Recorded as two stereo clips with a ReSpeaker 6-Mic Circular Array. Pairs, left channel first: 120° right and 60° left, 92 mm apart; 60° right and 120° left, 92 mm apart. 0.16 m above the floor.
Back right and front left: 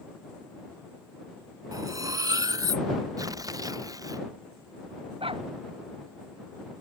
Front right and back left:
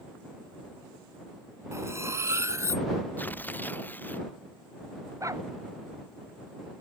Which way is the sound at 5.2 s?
65° left.